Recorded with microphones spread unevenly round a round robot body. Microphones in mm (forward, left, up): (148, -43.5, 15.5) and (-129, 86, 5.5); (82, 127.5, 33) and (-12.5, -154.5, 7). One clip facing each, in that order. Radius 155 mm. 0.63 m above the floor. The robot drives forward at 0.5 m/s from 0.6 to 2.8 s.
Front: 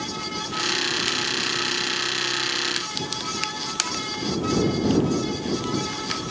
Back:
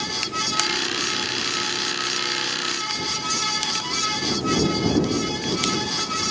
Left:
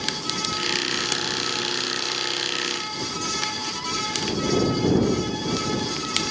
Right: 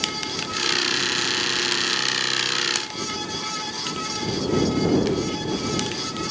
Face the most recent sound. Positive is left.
No sound to turn to.